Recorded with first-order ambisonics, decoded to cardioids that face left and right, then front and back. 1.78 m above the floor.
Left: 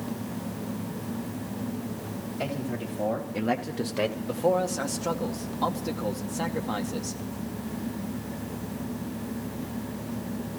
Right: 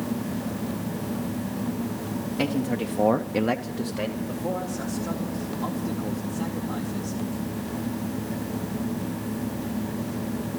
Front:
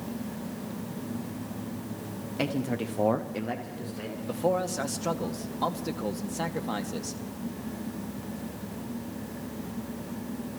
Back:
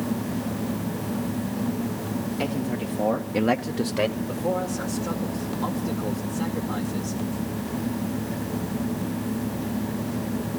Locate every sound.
2.4 s a man speaking: 55° right, 1.4 m; by 4.2 s 155° left, 1.2 m
4.3 s a man speaking: 45° left, 1.8 m